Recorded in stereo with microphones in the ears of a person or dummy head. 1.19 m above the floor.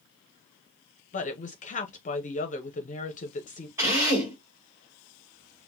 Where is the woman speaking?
35° left (ahead or behind), 0.7 m.